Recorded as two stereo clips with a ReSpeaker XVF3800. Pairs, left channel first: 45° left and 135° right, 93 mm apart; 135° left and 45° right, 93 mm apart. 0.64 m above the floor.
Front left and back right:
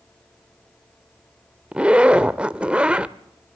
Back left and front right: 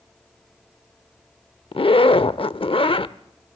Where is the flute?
I don't hear a flute.